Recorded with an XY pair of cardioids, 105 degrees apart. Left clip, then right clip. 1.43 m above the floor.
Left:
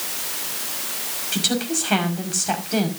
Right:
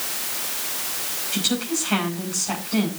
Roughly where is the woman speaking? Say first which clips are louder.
Left 2 dB; ahead left.